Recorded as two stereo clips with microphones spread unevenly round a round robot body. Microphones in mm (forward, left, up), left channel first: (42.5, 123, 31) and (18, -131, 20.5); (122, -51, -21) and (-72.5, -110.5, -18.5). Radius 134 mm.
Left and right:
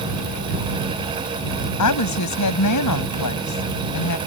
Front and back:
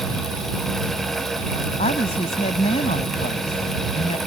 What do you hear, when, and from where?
1.8 s a woman speaking: 85° left